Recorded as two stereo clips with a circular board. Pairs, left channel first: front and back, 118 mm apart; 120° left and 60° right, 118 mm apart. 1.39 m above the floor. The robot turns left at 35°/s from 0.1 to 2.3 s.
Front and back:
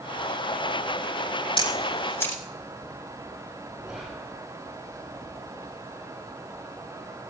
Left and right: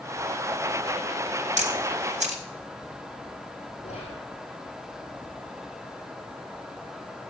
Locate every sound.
1.6 s a camera shutter: 45° right, 3 m; by 2.4 s 75° right, 3 m
3.8 s whispering: 95° left, 4.5 m